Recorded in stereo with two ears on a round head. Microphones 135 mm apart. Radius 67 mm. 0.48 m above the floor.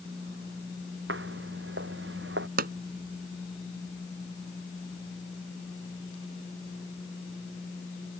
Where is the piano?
No piano in this recording.